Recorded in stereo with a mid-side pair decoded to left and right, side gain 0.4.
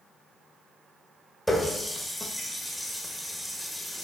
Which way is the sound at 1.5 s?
10° left.